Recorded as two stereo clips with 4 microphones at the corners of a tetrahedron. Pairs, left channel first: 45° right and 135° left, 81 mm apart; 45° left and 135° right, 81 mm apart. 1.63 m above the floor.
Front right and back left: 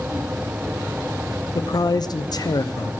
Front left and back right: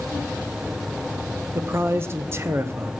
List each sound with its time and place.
1.6 s a man speaking: 75° right, 0.6 m